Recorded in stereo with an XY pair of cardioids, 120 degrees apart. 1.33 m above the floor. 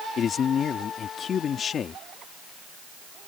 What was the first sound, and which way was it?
A man speaking, 45° left.